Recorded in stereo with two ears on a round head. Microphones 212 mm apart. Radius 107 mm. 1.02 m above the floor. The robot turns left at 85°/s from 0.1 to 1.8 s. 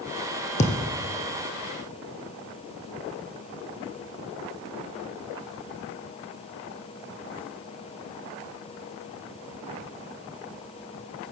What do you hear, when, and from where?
0.6 s a thud: 35° left, 1.8 m; by 1.1 s 5° right, 1.8 m